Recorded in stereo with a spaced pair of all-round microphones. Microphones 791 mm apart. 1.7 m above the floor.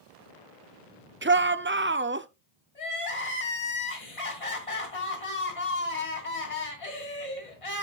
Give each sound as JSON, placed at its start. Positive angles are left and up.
{"t": 1.2, "sound": "a shout", "side_deg": -15, "distance_m": 0.5}
{"t": 2.8, "sound": "crying", "side_deg": 40, "distance_m": 3.0}